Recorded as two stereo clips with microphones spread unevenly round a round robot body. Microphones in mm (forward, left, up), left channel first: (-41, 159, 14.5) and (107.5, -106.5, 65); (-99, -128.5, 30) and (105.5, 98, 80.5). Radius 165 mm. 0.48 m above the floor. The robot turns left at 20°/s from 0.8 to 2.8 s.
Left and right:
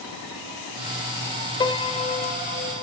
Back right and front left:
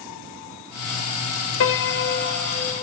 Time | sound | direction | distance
1.6 | a piano | 170° right | 0.5 m